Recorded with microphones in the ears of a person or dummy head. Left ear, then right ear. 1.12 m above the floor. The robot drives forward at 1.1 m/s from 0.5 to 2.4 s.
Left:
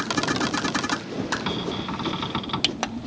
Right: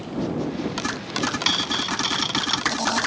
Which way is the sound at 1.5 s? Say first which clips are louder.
Right 7 dB; 75° right (ahead or behind).